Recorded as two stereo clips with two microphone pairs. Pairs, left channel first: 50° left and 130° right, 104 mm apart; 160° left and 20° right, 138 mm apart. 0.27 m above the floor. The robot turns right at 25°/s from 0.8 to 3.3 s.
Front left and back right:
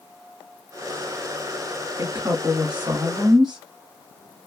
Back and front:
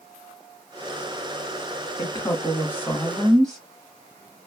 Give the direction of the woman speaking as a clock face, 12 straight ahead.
5 o'clock.